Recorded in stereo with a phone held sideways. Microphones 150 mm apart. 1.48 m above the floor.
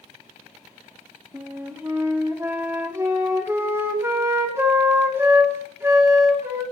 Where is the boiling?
No boiling in this recording.